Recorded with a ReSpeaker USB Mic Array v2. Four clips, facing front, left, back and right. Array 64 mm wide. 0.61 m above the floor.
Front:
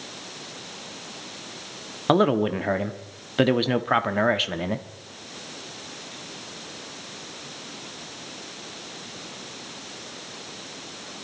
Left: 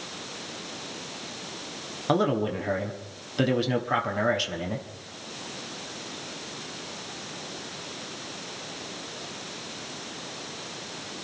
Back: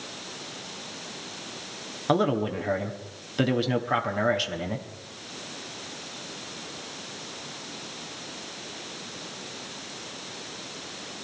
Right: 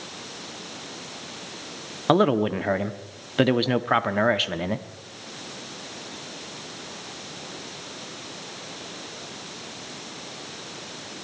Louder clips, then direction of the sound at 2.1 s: Right 5 dB, front 4 dB; 40° right.